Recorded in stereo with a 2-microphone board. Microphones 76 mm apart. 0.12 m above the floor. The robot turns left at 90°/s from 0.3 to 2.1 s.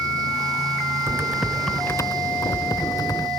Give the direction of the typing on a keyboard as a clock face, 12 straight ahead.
5 o'clock.